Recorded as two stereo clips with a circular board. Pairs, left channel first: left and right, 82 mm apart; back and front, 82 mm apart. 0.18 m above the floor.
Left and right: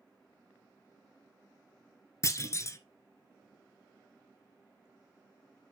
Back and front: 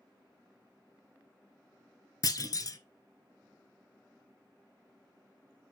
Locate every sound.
2.2 s a clunk: 140° left, 0.6 m